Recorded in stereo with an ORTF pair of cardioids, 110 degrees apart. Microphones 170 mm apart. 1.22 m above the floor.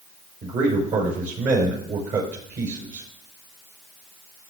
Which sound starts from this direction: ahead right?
A man speaking, at 0.4 s.